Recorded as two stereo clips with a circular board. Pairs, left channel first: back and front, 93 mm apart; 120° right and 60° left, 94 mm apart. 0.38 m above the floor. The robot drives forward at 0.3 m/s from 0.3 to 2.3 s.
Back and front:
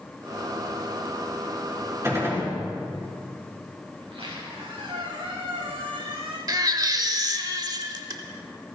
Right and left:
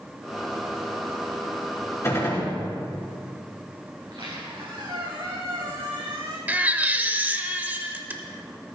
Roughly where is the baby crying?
Ahead.